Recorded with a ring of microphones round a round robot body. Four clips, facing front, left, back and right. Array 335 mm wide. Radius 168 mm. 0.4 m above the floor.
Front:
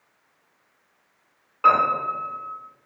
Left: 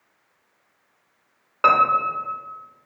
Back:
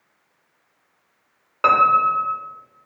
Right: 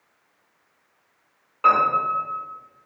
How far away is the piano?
About 0.6 m.